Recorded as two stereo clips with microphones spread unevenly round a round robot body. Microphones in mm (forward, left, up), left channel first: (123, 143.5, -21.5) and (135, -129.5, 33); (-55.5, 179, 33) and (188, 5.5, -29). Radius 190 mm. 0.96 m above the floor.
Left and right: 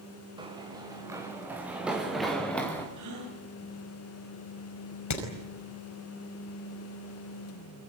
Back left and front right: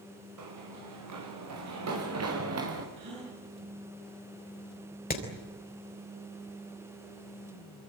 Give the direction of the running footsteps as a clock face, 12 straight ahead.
1 o'clock.